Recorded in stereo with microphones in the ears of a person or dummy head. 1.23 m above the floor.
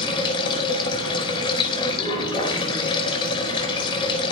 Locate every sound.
0.0 s running water: 30° left (ahead or behind), 4.5 m